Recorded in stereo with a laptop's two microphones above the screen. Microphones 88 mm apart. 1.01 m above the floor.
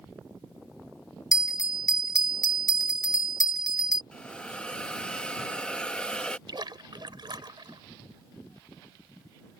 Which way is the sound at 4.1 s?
10° left (ahead or behind).